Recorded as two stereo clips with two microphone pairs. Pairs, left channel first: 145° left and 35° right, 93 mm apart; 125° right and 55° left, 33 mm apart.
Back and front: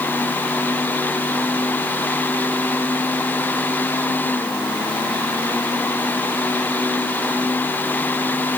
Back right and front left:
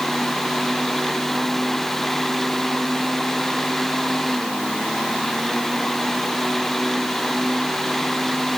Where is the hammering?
No hammering in this recording.